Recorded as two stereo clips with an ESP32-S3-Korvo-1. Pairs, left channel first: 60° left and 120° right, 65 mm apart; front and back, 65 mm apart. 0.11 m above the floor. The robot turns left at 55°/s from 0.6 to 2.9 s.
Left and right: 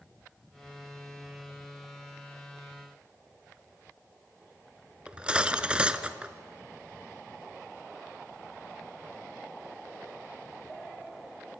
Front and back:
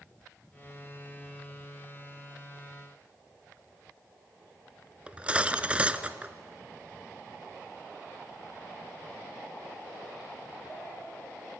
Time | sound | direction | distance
5.1 | cutlery clinking | 155° right | 0.8 m